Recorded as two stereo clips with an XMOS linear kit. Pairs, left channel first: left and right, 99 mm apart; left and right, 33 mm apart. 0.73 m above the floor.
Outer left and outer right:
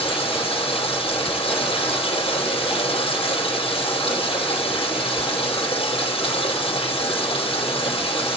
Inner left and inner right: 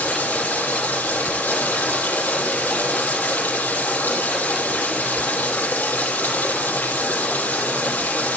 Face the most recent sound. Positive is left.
turn(degrees=65)  # may be behind; listen again after turning